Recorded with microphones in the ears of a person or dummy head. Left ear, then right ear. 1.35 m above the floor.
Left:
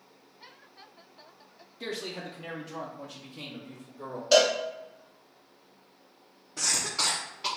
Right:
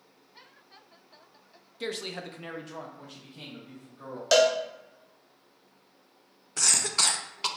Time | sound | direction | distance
1.8 | a man speaking | 25° right (ahead or behind) | 0.5 m
4.3 | a cowbell | 60° right (ahead or behind) | 1.0 m
6.6 | a cough | 45° right (ahead or behind) | 0.6 m